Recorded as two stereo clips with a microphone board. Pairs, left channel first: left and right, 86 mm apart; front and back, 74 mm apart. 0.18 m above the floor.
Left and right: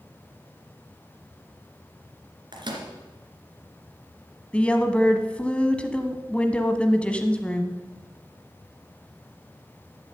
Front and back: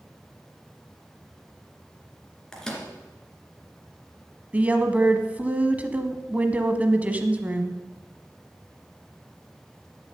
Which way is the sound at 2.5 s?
80° right.